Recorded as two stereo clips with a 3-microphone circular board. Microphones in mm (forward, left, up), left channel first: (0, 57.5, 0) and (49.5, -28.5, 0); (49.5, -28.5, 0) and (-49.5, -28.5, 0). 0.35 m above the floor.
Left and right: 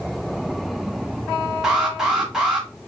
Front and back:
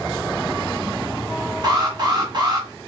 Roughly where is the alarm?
Behind right.